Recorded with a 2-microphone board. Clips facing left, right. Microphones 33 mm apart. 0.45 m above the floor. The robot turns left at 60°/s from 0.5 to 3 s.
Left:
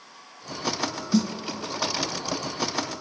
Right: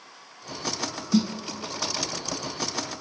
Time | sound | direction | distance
1.1 | a snare drum | 20° right (ahead or behind) | 1.0 m